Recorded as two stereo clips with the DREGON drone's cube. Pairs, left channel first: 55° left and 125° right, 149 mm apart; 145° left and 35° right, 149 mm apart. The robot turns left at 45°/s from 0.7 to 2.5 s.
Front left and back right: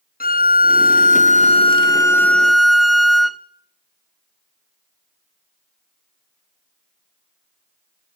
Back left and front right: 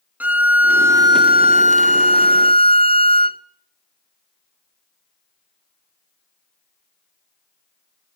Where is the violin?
45° left, 0.7 m; by 3.4 s 35° right, 0.7 m.